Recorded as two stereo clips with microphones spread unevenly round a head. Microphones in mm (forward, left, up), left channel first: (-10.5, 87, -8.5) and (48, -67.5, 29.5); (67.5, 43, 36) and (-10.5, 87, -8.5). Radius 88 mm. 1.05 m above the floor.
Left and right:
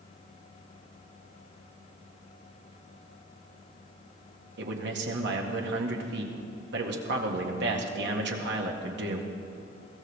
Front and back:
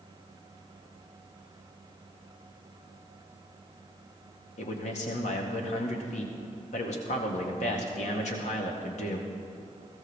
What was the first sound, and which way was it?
A man speaking, 50° right.